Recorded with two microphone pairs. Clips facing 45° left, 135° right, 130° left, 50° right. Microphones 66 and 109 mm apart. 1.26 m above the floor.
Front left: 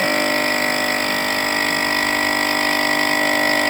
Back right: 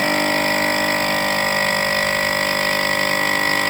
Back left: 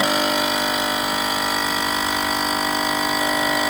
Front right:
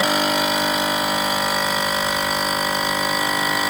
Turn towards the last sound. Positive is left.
No sound to turn to.